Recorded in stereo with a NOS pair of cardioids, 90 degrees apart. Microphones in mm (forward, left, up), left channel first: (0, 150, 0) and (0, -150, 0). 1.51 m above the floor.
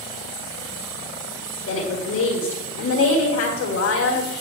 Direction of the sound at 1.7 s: 60° left.